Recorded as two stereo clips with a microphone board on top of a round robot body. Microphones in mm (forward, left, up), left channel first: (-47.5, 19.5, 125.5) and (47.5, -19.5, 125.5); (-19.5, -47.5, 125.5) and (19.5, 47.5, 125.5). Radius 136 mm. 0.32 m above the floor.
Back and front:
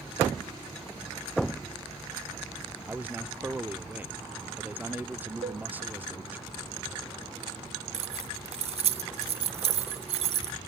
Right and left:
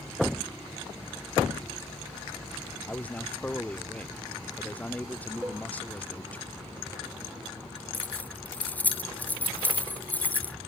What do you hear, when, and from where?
2.9 s a man speaking: 60° right
5.4 s a cowbell: 10° right
7.9 s keys jangling: 35° right